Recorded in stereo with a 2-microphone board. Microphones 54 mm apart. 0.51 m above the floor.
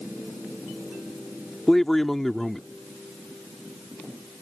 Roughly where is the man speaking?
Centre.